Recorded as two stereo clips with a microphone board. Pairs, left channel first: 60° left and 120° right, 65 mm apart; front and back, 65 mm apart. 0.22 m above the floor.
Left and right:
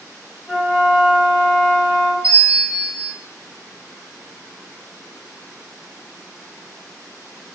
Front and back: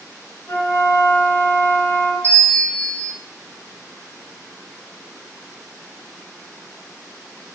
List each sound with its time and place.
0.5 s a flute: 30° right, 1.1 m
2.2 s a bell: 60° right, 1.4 m